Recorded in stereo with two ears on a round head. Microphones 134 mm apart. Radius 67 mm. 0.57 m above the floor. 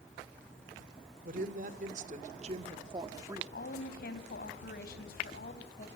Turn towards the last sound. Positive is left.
turn(degrees=70)  # may be behind; listen again after turning